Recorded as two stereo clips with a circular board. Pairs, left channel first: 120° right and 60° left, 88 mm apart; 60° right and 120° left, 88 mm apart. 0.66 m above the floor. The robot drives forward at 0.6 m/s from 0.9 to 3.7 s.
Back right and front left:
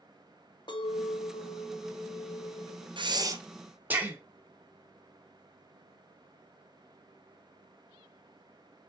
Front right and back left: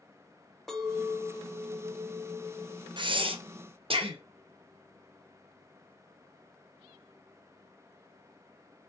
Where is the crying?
No crying in this recording.